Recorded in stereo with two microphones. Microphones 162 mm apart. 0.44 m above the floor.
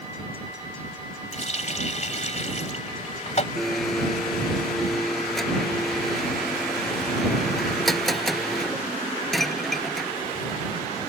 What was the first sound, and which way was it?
A running tap, 45° left (ahead or behind).